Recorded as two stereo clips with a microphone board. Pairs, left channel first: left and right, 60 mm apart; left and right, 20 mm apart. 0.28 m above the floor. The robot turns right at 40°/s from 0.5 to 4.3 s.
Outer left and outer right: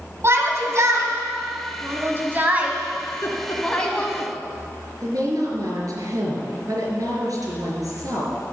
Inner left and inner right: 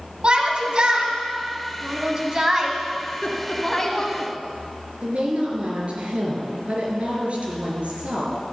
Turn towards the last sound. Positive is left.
turn(degrees=-70)  # may be behind; listen again after turning